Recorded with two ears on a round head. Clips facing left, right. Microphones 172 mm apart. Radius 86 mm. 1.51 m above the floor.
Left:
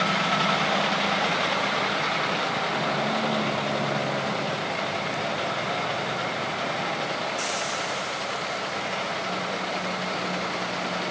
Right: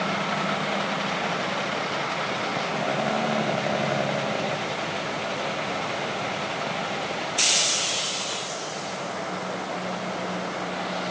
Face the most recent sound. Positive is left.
No sound to turn to.